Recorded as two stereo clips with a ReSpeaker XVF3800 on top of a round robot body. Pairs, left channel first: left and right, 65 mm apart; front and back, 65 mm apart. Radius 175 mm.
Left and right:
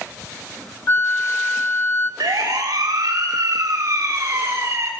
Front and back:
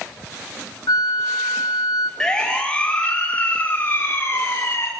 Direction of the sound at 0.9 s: 35° left.